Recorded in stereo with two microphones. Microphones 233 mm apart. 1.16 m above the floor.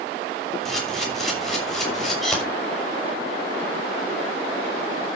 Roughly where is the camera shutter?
Centre.